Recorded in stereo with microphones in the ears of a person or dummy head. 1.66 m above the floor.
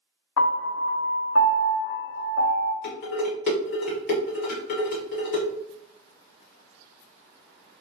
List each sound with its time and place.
0.4 s a piano: 80° left, 0.7 m
2.8 s dishes clattering: 45° left (ahead or behind), 0.9 m